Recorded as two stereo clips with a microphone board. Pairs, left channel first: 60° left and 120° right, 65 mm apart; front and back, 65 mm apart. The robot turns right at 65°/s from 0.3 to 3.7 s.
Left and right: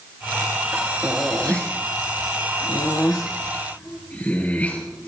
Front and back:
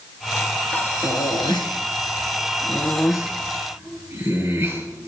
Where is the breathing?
65° right, 3.5 m; by 5.1 s 130° left, 3.5 m.